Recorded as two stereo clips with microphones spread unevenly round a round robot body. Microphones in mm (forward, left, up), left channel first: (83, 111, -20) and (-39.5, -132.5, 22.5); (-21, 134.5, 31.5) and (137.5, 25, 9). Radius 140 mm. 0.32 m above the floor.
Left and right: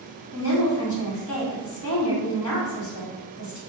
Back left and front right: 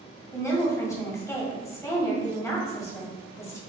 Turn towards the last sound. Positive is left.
turn(degrees=65)